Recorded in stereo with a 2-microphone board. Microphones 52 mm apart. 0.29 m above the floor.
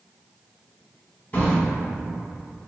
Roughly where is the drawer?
Left.